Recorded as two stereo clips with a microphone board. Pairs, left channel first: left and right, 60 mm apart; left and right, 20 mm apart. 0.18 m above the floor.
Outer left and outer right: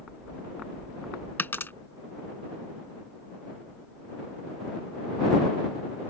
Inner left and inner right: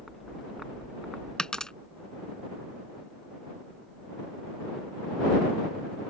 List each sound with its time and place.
1.4 s a dropped coin: 40° left (ahead or behind)